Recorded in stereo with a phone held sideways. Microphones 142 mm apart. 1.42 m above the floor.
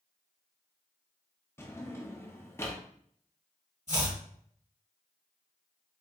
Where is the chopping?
60° right (ahead or behind), 1.9 m.